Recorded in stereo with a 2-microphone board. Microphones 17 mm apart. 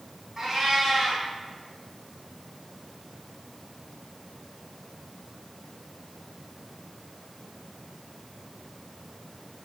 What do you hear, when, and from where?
0.4 s a cat meowing: 25° right (ahead or behind), 3 m